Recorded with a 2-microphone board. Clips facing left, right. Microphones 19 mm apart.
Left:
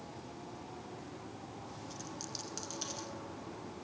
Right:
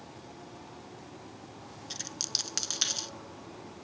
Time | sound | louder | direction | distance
1.9 | a dropped coin | right 13 dB | 65° right (ahead or behind) | 0.5 m